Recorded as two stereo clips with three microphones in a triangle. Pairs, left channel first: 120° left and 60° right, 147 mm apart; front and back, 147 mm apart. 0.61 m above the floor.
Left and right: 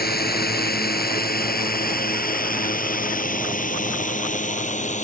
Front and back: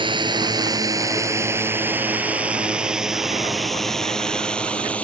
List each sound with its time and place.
0.0 s a drone: 120° left; by 5.0 s 80° left